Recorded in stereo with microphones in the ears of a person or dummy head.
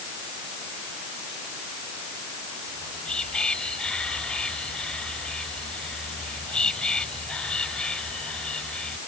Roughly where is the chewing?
I don't hear chewing.